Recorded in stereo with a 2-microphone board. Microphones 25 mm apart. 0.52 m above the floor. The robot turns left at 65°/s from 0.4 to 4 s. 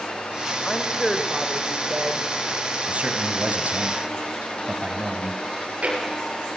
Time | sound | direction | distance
0.6 | a woman speaking | 25° left | 1.9 m
2.9 | a man speaking | 45° right | 3 m
5.5 | chewing | 60° right (ahead or behind) | 8 m